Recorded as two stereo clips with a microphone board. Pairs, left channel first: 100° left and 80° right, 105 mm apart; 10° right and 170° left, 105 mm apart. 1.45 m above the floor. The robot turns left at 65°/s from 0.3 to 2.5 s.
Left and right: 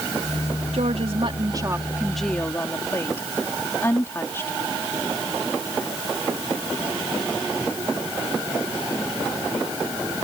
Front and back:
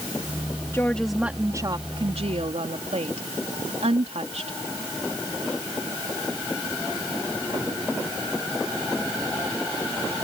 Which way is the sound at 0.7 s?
75° right.